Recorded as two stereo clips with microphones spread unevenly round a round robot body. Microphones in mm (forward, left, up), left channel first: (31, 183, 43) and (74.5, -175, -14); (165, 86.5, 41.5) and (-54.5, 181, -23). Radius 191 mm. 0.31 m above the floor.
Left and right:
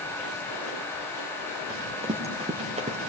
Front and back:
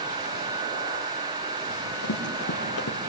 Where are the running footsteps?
10° right, 4 m.